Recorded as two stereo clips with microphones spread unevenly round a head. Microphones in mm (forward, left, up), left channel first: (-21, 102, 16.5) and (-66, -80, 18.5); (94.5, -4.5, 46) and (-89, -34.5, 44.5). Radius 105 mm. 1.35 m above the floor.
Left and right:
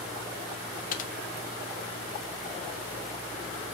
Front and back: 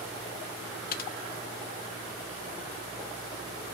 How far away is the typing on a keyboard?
About 0.6 m.